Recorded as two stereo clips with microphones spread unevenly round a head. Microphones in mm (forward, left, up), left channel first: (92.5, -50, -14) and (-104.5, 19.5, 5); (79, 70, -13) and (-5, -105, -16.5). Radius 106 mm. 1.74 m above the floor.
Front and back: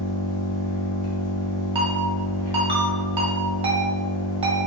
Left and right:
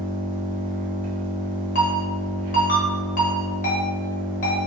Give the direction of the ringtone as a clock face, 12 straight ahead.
9 o'clock.